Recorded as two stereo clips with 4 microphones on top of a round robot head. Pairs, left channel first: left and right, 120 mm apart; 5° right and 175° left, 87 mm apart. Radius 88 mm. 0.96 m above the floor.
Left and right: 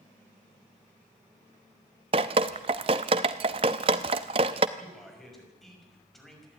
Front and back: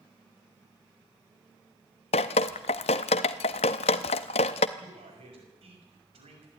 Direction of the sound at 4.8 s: Straight behind.